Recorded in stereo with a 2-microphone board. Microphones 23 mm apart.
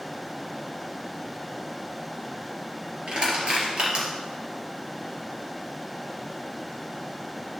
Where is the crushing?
50° right (ahead or behind), 3.5 m.